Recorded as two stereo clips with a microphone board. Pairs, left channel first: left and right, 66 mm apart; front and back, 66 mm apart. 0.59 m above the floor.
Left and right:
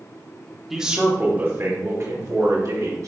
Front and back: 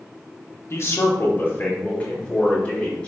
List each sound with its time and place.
0.7 s a man speaking: 5° right, 1.5 m; by 3.1 s 75° right, 3.5 m